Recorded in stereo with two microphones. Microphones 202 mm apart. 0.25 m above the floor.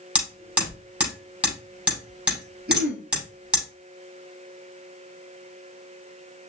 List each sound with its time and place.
0.1 s hammering: 5° right (ahead or behind), 5.5 m
2.7 s throat clearing: 45° right (ahead or behind), 2.5 m